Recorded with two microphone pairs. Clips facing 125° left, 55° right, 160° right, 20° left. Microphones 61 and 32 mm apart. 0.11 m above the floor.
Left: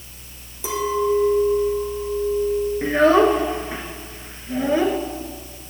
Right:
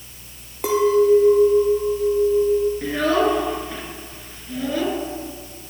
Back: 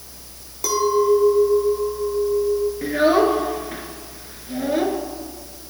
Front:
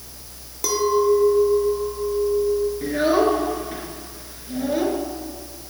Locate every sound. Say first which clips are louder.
0.6 s a clink: right 6 dB, back 1 dB; 70° right, 1.4 m
2.8 s a child speaking: left 4 dB, back 3 dB; 150° left, 0.9 m